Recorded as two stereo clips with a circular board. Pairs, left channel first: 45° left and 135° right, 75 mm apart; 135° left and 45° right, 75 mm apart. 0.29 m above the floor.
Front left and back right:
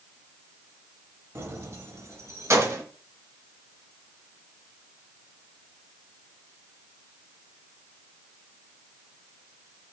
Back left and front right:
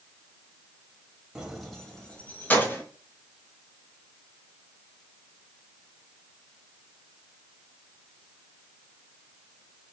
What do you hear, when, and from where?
1.4 s keys jangling: 120° right, 1.0 m; by 2.8 s 175° right, 1.3 m